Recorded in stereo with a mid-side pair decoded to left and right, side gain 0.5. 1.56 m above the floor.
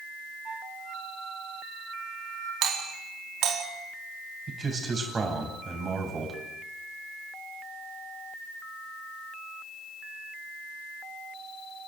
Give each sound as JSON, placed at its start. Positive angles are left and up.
{"t": 0.5, "sound": "a flute", "azimuth_deg": -40, "distance_m": 8.5}
{"t": 2.6, "sound": "a doorbell", "azimuth_deg": -70, "distance_m": 4.5}
{"t": 4.5, "sound": "a man speaking", "azimuth_deg": -35, "distance_m": 9.0}